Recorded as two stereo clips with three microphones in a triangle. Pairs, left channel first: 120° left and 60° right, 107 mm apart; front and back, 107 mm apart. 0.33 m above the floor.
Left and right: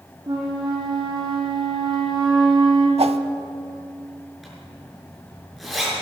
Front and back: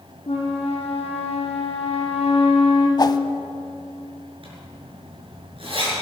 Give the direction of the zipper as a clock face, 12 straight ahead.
5 o'clock.